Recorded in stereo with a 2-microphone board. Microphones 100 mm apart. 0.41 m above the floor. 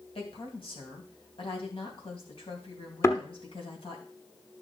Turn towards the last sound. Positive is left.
turn(degrees=30)  # may be behind; listen again after turning